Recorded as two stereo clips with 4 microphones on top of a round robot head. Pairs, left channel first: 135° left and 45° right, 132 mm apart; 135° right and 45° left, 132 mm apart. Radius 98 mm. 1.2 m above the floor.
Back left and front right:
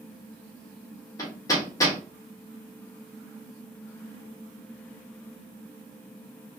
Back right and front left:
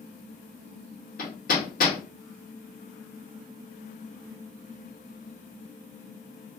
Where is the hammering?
160° right, 1.3 m.